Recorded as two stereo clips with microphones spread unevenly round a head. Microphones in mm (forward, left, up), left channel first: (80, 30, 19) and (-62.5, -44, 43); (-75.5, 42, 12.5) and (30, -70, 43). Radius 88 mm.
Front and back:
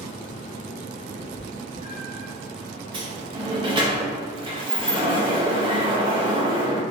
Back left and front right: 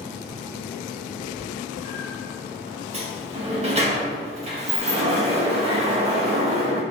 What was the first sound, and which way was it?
A cat meowing, 120° right.